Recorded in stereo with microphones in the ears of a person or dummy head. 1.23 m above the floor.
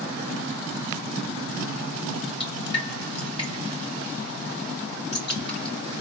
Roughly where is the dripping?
Left.